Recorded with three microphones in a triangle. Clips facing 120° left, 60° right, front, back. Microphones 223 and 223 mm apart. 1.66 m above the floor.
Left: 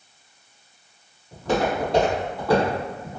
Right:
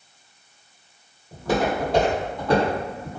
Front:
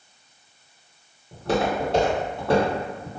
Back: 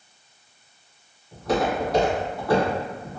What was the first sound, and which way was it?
Footsteps, 5° left.